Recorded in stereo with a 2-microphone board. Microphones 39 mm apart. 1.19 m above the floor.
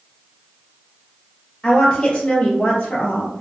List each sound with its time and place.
1.6 s a woman speaking: 20° left (ahead or behind), 1.3 m; by 3.4 s 60° left (ahead or behind), 0.8 m